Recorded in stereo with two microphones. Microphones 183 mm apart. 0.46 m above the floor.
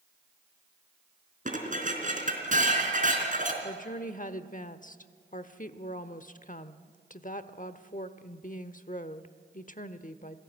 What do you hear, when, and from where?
1.4 s dishes clattering: 45° right (ahead or behind), 3.5 m
3.6 s a woman speaking: 45° left (ahead or behind), 1.0 m